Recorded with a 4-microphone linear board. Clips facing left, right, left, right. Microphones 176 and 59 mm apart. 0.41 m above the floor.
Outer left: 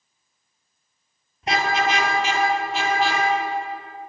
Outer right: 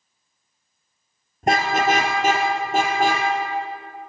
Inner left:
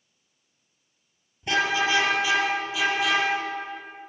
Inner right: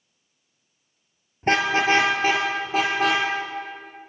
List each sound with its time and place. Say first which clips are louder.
1.4 s a car horn: outer right 3 dB, inner right 3 dB; 50° right (ahead or behind), 3 m